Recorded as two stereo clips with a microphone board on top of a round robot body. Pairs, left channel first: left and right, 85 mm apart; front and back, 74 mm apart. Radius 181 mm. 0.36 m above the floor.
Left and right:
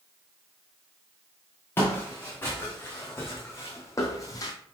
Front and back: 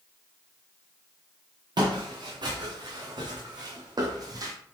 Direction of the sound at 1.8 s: 155° left.